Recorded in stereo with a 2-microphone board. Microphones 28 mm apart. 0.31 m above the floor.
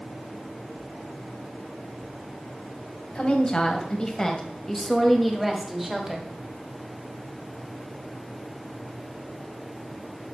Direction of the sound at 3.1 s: 40° left (ahead or behind).